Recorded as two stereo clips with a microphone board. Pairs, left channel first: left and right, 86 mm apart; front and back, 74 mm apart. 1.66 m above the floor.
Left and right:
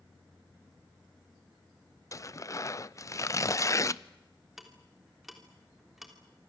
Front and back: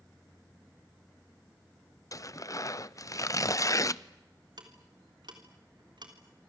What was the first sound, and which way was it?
Tearing paper, 40° left.